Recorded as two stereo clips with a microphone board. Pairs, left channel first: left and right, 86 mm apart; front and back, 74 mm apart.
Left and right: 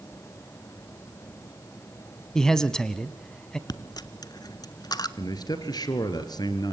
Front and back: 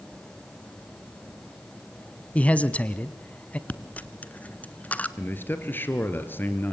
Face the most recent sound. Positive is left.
turn(degrees=60)